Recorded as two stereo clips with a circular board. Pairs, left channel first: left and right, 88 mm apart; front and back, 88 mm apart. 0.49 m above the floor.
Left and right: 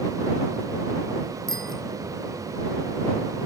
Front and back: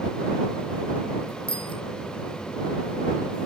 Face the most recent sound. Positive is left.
turn(degrees=5)